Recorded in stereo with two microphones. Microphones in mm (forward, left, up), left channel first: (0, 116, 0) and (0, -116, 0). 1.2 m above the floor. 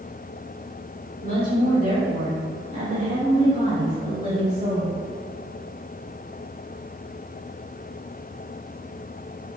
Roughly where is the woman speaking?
Right.